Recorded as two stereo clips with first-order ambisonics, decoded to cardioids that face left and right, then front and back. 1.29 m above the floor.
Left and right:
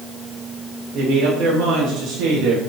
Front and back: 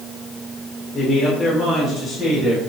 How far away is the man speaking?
About 2 m.